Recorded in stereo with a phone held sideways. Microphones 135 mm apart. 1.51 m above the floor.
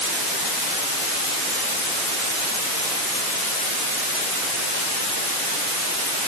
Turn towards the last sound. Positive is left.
No sound to turn to.